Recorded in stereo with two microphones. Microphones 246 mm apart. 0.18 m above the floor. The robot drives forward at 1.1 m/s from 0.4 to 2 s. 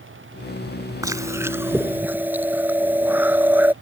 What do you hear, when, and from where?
1.0 s chewing: 15° right (ahead or behind); by 3.7 s 5° right (ahead or behind)